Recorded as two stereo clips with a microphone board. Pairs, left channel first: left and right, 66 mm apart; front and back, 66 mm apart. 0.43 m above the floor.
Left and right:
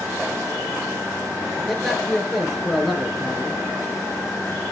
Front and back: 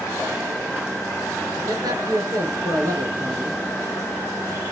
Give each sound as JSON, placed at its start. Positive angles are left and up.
{"t": 1.7, "sound": "a man speaking", "azimuth_deg": 175, "distance_m": 6.5}